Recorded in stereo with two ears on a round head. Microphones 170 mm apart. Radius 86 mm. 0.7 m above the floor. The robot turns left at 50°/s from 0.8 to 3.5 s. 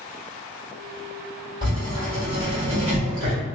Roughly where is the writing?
Ahead right.